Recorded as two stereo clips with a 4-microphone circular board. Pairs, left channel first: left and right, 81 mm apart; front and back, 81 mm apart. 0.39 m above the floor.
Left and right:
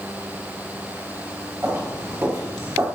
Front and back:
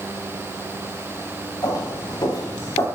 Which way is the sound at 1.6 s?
30° right.